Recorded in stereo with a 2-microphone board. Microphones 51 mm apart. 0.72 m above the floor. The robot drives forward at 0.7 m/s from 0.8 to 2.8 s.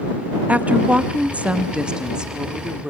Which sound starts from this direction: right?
A woman speaking, at 0.5 s.